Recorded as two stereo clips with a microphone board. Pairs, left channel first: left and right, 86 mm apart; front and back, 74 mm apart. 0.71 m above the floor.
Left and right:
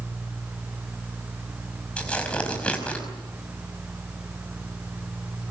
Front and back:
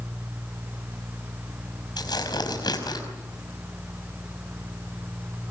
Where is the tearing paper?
15° left, 5.5 m.